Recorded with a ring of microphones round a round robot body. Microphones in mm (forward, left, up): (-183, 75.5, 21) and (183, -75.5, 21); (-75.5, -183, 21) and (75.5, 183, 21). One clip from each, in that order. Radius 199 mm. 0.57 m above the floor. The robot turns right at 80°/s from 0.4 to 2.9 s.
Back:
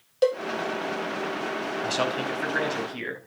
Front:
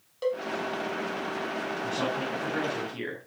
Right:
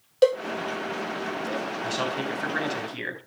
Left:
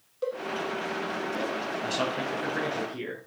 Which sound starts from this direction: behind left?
A man speaking, at 1.8 s.